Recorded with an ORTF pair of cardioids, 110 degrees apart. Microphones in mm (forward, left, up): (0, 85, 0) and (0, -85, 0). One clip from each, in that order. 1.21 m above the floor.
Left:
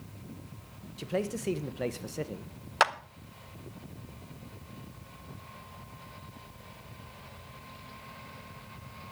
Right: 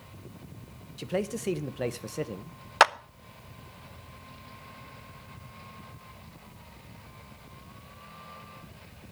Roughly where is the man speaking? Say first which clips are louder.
Right 1 dB; ahead.